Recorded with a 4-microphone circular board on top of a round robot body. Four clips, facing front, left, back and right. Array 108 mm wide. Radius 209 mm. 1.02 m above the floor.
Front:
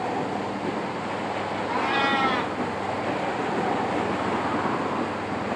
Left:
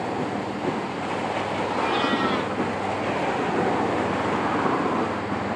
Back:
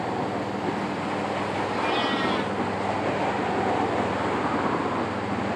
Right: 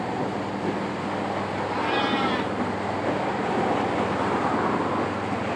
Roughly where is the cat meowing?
Ahead.